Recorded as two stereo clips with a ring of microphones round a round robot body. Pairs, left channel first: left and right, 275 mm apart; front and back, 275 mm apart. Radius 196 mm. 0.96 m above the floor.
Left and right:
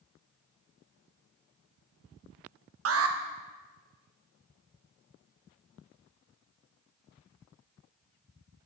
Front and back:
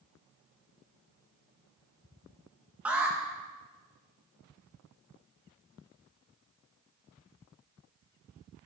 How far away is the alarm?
About 1.3 m.